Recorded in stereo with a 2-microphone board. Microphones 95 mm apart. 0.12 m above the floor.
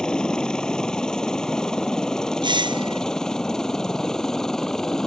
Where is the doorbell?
55° right (ahead or behind).